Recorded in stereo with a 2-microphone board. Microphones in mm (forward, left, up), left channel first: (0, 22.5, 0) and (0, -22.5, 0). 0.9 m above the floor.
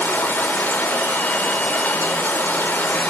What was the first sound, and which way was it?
Running water, 40° left (ahead or behind).